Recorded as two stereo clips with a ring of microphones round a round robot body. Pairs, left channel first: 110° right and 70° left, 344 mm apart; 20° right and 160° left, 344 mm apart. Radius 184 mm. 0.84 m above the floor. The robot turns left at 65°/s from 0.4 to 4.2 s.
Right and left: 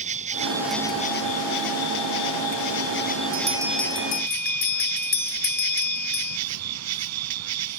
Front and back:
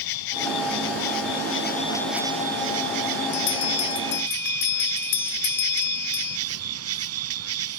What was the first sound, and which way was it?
An insect, straight ahead.